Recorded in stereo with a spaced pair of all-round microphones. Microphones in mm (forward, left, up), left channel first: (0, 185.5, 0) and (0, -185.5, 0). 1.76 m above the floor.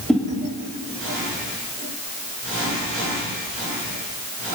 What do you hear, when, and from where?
0.1 s a whoosh: centre (ahead or behind), 2.5 m